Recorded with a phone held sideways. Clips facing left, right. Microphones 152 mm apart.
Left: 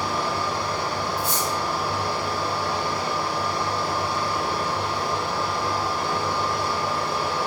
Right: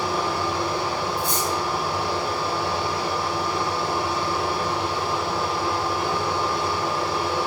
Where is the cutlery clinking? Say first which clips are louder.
Right 1 dB; 5° left (ahead or behind), 1.1 m.